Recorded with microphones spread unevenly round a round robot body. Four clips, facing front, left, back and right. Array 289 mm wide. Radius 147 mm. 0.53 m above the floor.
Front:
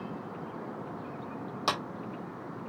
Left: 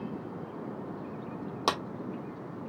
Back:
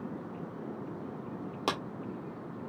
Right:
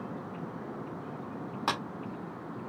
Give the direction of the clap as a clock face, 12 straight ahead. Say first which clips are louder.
Left 3 dB, front 2 dB; 8 o'clock.